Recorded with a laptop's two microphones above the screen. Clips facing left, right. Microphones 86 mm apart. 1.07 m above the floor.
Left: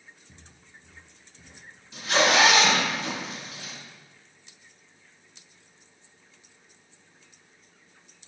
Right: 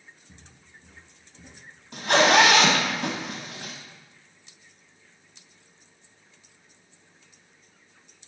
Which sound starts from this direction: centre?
Footsteps, at 0.3 s.